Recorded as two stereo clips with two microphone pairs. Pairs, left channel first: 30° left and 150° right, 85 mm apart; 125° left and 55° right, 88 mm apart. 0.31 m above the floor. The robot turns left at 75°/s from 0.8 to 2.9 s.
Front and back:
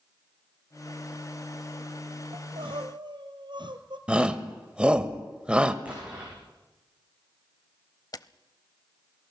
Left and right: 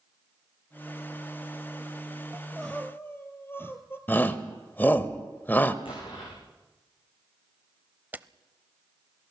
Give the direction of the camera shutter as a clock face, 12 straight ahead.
12 o'clock.